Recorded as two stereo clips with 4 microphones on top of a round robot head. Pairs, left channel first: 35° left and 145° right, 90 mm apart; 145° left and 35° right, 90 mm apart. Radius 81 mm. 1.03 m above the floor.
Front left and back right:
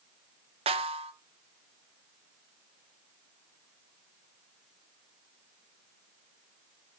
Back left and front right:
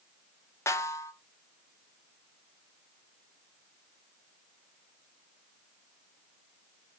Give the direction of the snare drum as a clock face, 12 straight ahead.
5 o'clock.